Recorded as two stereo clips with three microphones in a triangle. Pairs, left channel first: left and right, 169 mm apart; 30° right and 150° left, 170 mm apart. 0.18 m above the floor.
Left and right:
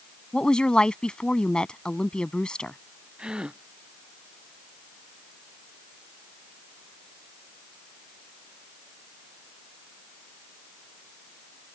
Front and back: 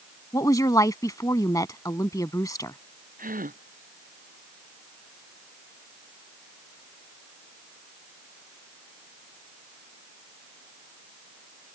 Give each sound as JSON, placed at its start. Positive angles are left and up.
{"t": 0.3, "sound": "a woman speaking", "azimuth_deg": 10}
{"t": 3.2, "sound": "a gasp", "azimuth_deg": -175}